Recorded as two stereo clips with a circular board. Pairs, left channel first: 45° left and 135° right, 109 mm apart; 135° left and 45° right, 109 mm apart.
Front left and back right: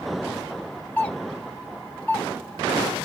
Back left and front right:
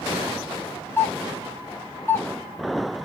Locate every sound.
1.0 s a doorbell: 105° left, 1.0 m